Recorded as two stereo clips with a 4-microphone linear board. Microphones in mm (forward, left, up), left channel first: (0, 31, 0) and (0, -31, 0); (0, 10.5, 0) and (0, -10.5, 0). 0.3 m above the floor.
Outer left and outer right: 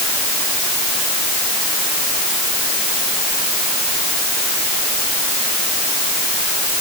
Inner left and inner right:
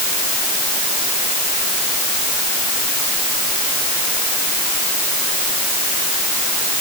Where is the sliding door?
I don't hear a sliding door.